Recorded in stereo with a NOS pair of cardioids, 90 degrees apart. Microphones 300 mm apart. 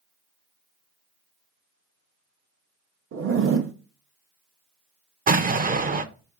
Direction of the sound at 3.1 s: 45° right.